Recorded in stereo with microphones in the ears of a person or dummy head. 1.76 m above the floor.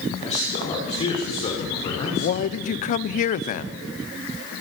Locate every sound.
0.2 s a man speaking: 35° left (ahead or behind), 5.5 m; by 2.3 s 30° left (ahead or behind), 6.5 m
2.1 s a man speaking: 40° left (ahead or behind), 0.7 m